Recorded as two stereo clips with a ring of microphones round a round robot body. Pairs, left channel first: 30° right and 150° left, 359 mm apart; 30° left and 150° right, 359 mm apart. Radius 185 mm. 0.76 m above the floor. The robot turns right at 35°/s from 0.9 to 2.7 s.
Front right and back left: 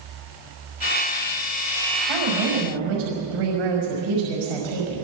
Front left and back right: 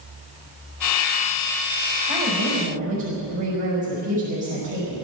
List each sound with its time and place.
2.1 s a woman speaking: 145° left, 5.5 m; by 5.0 s 165° left, 5.5 m